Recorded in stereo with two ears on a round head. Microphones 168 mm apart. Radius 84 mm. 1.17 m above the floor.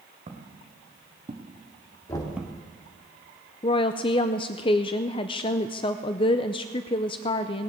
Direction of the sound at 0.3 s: 40° right (ahead or behind).